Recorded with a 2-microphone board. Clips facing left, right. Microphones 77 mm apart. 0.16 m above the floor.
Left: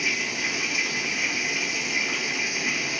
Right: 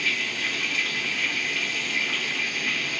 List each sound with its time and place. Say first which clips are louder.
0.0 s running water: even; 15° left (ahead or behind), 1.4 m